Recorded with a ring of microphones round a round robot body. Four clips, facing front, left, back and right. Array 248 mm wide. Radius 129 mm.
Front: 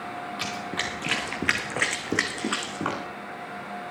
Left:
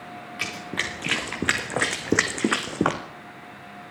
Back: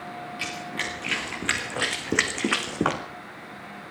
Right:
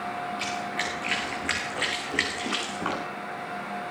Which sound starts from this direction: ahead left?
Running footsteps, at 0.4 s.